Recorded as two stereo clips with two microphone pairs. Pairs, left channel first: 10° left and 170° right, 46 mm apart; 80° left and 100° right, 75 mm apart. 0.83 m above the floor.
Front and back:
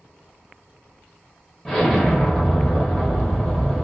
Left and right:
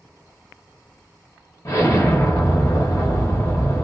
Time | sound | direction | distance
1.6 | an explosion | 90° left | 1.1 m